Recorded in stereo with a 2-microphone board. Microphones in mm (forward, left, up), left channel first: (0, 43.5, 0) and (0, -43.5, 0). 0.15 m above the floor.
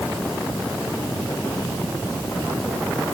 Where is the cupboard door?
No cupboard door in this recording.